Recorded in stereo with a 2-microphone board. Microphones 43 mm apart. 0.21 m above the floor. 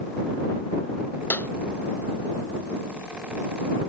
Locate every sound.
1.3 s a clap: 50° left (ahead or behind)